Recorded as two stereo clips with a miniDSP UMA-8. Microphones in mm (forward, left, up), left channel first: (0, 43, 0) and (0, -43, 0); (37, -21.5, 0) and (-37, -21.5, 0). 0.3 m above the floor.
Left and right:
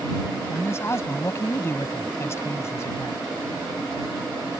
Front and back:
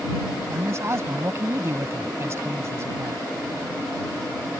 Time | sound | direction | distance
0.5 | a man speaking | 140° left | ?